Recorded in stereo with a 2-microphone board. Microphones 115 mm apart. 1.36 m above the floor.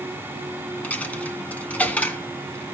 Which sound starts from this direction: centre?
A dropped coin, at 0.8 s.